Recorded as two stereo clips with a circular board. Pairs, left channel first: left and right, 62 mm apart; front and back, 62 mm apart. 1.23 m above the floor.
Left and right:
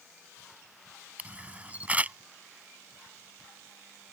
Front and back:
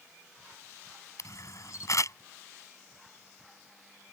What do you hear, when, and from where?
1.2 s a camera shutter: 25° right